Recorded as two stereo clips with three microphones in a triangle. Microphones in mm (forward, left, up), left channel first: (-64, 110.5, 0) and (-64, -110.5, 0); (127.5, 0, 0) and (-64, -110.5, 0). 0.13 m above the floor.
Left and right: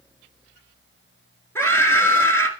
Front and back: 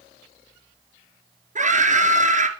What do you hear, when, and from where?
1.6 s a scream: 165° left, 2.5 m